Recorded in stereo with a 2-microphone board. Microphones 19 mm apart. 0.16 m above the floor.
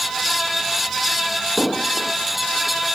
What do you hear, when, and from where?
1.6 s an explosion: 40° left (ahead or behind)